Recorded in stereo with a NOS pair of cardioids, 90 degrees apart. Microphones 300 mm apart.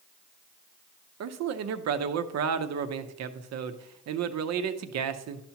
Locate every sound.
1.2 s a man speaking: 65° right, 0.8 m